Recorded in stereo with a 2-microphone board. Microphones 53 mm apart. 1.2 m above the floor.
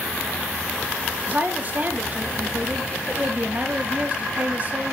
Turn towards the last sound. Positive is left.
turn(degrees=-35)  # may be behind; listen again after turning